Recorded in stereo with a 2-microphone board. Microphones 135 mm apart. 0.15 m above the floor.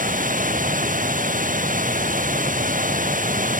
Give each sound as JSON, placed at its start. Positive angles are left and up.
{"t": 0.0, "sound": "running water", "side_deg": -85}